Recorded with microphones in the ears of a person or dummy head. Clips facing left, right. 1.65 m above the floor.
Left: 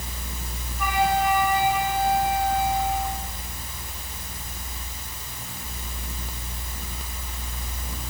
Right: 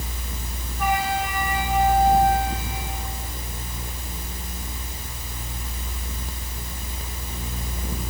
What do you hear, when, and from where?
0.8 s a flute: 75° left (ahead or behind), 6.5 m